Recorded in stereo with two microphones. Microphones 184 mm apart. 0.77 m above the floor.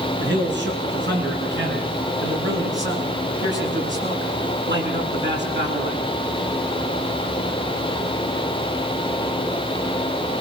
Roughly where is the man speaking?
Right.